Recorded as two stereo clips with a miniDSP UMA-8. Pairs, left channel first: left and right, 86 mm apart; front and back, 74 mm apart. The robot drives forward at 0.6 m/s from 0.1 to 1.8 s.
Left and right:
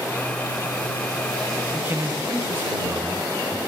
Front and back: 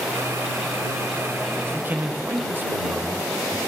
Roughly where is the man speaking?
Behind right.